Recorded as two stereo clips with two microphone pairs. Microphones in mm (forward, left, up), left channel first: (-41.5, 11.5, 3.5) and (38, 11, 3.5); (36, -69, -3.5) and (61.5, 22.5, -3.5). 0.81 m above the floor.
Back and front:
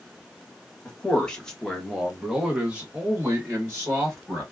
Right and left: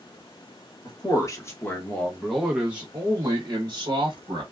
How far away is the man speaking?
About 1.1 m.